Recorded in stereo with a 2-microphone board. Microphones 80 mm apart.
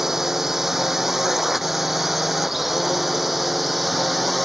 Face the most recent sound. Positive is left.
turn(degrees=0)  # may be behind; listen again after turning